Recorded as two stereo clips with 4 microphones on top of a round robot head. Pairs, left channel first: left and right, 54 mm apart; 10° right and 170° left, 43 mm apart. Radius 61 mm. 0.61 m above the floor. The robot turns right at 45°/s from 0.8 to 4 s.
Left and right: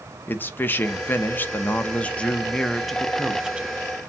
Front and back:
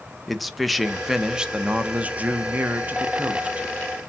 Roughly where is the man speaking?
Left.